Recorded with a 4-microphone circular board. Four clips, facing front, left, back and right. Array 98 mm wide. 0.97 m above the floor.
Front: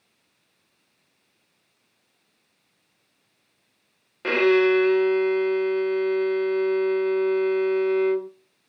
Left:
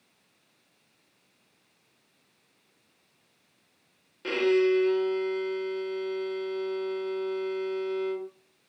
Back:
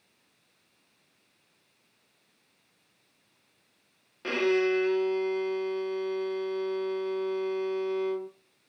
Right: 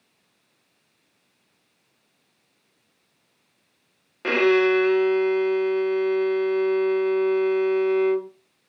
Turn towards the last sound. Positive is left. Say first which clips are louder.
# right 5 dB, front 7 dB
turn(degrees=-55)